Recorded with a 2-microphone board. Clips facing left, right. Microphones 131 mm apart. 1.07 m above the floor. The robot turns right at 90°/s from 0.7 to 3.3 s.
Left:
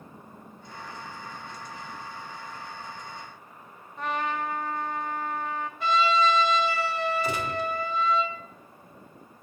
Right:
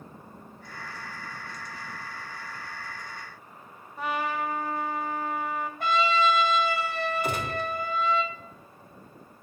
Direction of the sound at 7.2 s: 55° right (ahead or behind).